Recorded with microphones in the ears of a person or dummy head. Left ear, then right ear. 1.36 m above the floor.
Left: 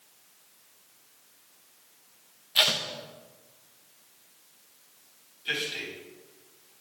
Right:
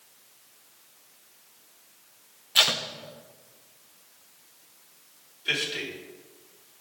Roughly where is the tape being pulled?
Centre.